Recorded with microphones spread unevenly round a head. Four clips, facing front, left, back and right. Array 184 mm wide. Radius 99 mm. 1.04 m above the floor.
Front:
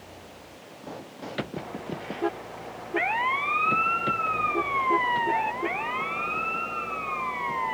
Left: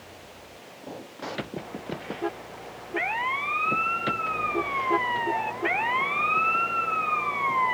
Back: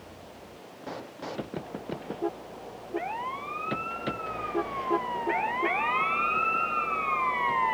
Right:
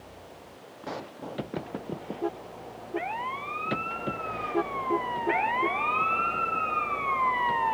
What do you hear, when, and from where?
Only background noise.